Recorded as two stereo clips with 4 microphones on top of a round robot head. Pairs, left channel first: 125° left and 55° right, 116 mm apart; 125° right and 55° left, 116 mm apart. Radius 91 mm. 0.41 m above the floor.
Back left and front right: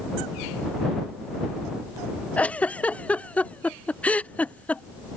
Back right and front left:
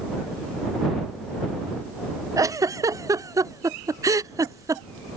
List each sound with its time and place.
2.4 s a giggle: 60° left